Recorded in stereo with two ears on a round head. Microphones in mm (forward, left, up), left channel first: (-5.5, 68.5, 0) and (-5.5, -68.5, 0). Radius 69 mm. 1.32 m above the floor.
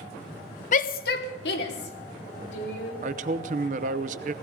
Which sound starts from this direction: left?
A shout, at 0.7 s.